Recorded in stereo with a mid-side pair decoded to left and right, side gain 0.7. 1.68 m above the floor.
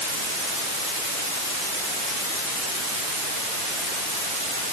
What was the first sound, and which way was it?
Only background noise.